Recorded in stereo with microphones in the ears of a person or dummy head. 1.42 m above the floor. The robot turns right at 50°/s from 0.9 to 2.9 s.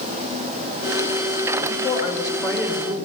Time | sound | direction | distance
1.7 | a woman speaking | 135° left | 6.5 m